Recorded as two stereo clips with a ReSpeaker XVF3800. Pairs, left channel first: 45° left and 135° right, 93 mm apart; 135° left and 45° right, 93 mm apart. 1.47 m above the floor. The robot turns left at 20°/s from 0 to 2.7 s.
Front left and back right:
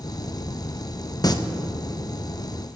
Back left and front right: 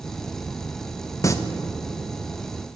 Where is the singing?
85° left, 0.8 m; by 1.3 s 80° left, 0.8 m.